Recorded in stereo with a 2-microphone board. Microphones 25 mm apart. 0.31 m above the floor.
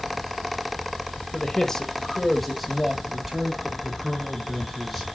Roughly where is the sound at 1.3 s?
Left.